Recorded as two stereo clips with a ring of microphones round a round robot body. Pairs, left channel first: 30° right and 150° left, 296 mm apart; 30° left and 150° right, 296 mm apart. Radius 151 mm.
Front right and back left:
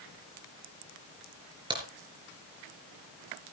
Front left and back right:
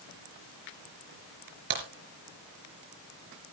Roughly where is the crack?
Behind right.